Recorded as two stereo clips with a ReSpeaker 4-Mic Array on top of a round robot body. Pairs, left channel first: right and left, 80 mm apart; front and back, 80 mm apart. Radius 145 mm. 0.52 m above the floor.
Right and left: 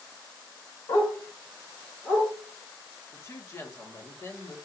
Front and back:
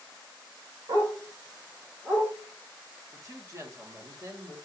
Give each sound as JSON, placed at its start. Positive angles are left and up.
{"t": 0.9, "sound": "a dog barking", "azimuth_deg": -140, "distance_m": 1.3}
{"t": 3.1, "sound": "a woman speaking", "azimuth_deg": -135, "distance_m": 1.6}